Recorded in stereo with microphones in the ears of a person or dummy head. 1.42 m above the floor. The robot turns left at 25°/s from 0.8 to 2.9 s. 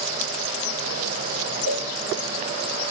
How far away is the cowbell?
About 1.0 m.